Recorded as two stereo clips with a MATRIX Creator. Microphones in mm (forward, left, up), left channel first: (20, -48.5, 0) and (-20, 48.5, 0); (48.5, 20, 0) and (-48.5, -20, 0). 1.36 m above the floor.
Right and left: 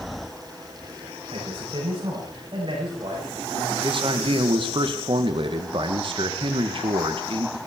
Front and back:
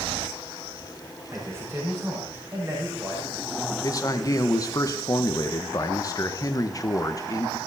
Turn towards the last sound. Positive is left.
turn(degrees=75)